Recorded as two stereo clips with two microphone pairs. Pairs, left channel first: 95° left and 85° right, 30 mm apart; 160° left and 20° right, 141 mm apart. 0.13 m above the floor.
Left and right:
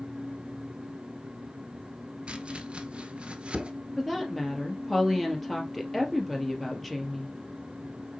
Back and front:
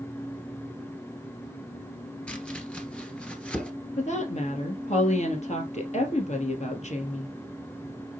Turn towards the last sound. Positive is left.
turn(degrees=180)